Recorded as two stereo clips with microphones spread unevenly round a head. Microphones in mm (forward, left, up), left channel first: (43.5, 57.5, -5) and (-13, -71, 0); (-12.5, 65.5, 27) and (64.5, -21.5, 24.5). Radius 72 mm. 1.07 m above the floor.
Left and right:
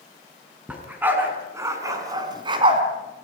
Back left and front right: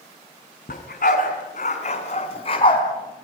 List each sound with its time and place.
0.7 s a dog barking: 165° left, 4 m; by 2.8 s 170° right, 3.5 m